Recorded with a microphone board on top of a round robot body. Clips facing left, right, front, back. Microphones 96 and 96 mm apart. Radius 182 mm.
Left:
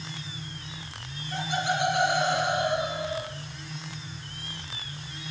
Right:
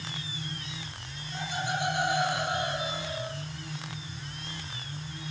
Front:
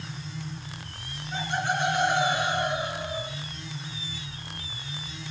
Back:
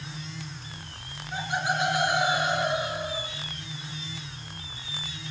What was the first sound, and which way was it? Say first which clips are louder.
Laughter: left 4 dB, even; 95° left.